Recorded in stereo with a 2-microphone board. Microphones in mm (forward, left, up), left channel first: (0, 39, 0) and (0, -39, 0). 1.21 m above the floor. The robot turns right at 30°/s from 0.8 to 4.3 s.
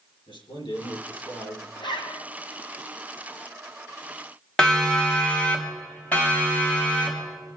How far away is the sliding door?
I don't hear a sliding door.